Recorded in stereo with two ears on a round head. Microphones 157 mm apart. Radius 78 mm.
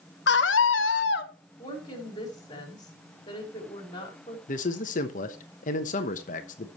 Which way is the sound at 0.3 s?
70° left (ahead or behind).